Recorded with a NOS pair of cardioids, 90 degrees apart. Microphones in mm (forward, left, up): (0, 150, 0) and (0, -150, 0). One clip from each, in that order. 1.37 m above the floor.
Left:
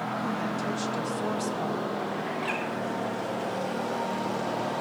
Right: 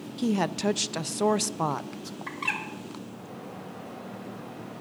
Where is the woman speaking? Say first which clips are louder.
Right 2 dB; 55° right, 0.7 m.